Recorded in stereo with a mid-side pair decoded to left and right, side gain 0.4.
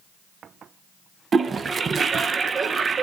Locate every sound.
1.3 s a toilet flushing: 45° right, 0.8 m